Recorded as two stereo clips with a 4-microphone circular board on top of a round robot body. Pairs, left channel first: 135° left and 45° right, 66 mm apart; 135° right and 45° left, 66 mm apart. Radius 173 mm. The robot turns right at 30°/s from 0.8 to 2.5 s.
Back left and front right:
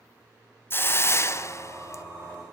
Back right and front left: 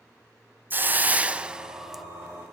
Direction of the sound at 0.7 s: 95° left.